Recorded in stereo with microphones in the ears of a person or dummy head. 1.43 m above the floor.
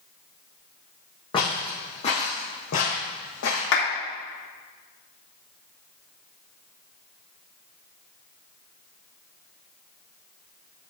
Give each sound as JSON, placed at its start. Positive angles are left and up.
{"t": 1.3, "sound": "footsteps", "side_deg": 25, "distance_m": 3.0}
{"t": 3.7, "sound": "a clap", "side_deg": 70, "distance_m": 3.0}